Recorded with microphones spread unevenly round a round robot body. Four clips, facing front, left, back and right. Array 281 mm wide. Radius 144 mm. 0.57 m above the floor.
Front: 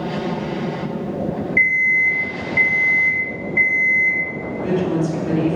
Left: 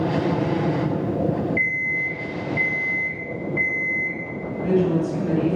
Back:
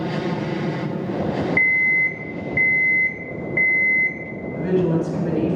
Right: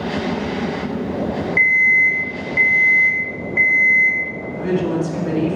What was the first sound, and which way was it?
An alarm clock, 130° right.